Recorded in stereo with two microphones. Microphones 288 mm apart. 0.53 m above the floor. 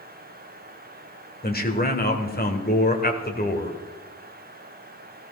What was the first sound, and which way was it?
A man speaking, 30° left (ahead or behind).